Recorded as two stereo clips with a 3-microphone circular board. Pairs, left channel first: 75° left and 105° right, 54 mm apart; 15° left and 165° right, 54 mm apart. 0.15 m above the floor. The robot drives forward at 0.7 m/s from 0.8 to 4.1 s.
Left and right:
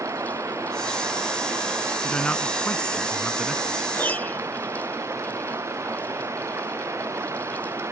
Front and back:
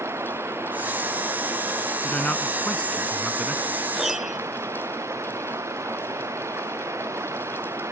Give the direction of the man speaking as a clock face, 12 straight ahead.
11 o'clock.